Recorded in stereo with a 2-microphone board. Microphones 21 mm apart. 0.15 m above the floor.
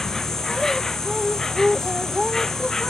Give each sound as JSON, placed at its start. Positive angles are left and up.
{"t": 0.0, "sound": "an insect", "side_deg": 20}